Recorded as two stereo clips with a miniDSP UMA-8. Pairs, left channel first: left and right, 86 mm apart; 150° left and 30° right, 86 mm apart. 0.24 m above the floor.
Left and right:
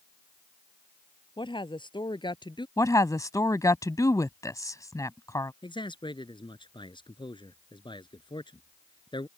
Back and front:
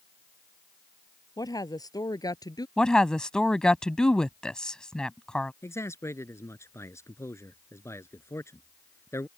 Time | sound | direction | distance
1.4 | a woman speaking | 110° left | ?
2.8 | a woman speaking | 75° left | ?
5.6 | a man speaking | 95° left | ?